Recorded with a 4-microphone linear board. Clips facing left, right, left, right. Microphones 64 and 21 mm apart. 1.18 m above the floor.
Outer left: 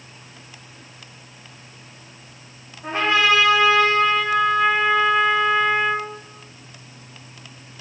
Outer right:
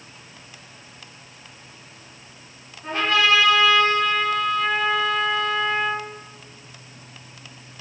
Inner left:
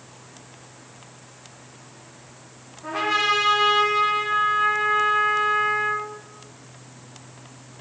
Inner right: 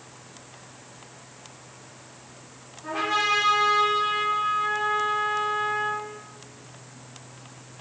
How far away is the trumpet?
About 0.9 m.